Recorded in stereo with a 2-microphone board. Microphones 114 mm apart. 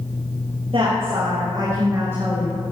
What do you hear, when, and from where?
0.7 s a woman speaking: 50° right (ahead or behind), 3.5 m; by 2.5 s 10° right (ahead or behind), 2.5 m